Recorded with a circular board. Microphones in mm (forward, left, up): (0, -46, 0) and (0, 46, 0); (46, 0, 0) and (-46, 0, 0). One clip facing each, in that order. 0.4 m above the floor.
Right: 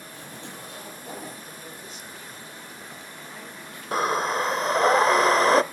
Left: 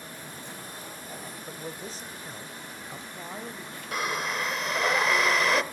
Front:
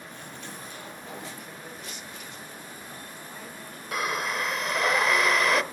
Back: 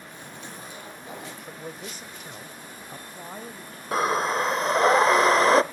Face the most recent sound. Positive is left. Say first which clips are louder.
# right 7 dB, back 6 dB
turn(degrees=-130)